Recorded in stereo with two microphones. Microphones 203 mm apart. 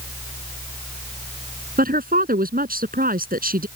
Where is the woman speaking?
50° right (ahead or behind).